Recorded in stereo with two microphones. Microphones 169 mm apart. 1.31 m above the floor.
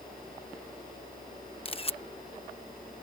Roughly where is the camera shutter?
Left.